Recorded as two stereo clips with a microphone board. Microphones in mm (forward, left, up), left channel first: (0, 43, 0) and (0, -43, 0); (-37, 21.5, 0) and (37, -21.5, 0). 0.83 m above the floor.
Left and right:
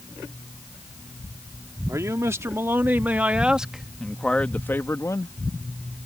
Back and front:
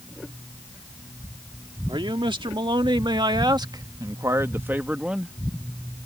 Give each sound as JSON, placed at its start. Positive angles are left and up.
{"t": 1.9, "sound": "a man speaking", "azimuth_deg": -40}